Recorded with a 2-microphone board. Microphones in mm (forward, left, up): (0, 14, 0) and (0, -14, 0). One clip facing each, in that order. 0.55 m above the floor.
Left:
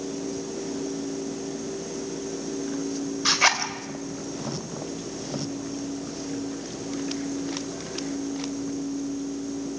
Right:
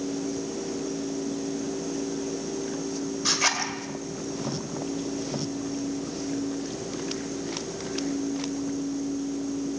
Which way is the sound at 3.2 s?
20° left (ahead or behind).